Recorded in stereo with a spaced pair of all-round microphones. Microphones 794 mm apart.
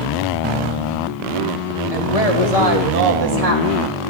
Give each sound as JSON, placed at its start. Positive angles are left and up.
{"t": 1.9, "sound": "a woman speaking", "side_deg": -50, "distance_m": 3.0}